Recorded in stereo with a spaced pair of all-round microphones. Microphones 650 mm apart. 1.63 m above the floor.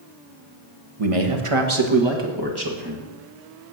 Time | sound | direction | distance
1.0 | a man speaking | 60° right (ahead or behind) | 1.3 m